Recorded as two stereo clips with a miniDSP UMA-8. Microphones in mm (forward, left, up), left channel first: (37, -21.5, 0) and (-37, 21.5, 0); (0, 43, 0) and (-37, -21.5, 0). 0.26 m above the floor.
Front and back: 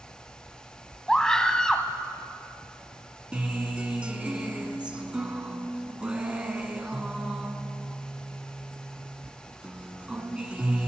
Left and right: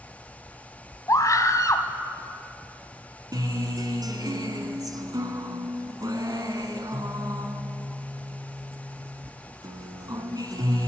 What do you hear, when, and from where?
1.1 s a scream: 50° left, 1.5 m
3.3 s a guitar: 135° right, 1.6 m